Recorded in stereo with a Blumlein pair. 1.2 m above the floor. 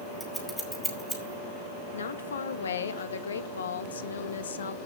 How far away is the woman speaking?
About 1.2 m.